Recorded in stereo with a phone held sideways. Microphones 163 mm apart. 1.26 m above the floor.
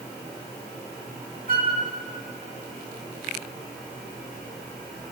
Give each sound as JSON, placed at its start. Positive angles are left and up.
{"t": 1.5, "sound": "a flute", "side_deg": -65, "distance_m": 1.1}